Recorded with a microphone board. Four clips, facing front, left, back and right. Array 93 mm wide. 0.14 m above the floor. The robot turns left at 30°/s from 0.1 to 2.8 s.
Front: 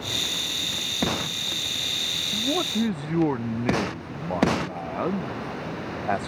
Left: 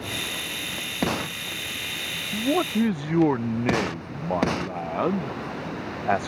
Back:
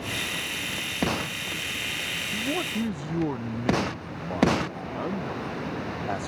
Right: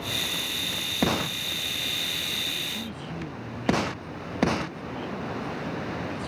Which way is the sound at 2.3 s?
80° left.